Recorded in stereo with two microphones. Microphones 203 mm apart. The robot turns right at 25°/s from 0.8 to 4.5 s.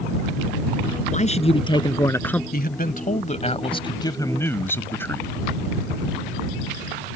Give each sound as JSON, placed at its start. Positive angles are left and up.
{"t": 1.1, "sound": "a man speaking", "azimuth_deg": 140}
{"t": 2.5, "sound": "a man speaking", "azimuth_deg": 115}